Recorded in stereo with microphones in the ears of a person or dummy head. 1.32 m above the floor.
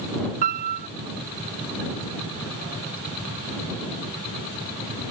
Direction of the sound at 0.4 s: 50° right (ahead or behind).